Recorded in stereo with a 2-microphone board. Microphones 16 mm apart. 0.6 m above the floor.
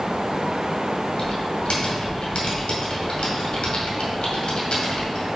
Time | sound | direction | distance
1.2 | typing on a keyboard | 85° left | 1.8 m